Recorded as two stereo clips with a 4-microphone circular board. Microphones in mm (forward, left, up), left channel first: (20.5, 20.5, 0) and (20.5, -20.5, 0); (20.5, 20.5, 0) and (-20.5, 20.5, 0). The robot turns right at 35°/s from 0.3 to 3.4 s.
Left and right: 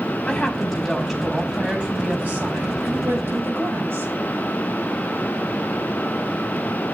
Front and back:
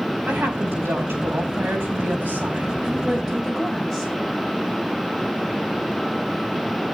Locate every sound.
0.3 s a woman speaking: 160° left, 5 m; by 4.1 s 90° right, 5 m